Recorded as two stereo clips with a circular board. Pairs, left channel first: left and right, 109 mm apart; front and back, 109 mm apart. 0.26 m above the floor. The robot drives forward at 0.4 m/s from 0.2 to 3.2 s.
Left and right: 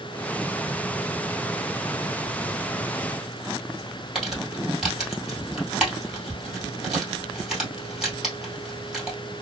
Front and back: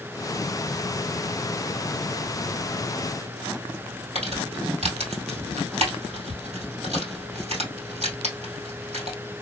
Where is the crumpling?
175° right, 2 m.